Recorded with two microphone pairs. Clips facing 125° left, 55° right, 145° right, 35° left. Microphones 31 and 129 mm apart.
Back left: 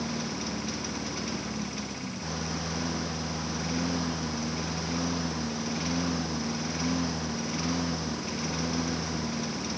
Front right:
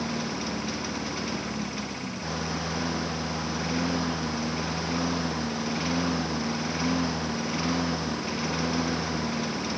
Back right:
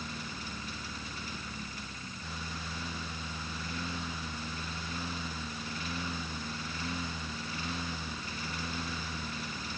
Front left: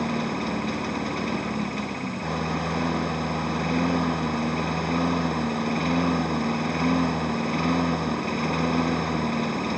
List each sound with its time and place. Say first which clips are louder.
0.0 s a lawn mower: front right 3 dB, front left 16 dB; 20° left; by 9.8 s 15° left